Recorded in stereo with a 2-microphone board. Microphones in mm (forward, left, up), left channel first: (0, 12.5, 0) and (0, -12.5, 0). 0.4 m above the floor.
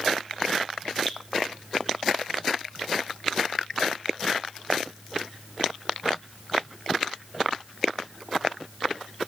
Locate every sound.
1.1 s dripping: 25° left (ahead or behind), 1.4 m